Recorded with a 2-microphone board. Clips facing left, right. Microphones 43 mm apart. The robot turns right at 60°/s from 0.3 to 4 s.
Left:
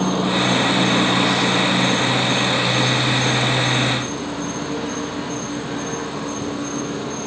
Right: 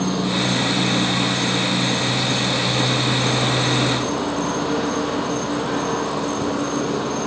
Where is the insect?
30° left, 4 m; by 7.3 s 105° right, 4 m.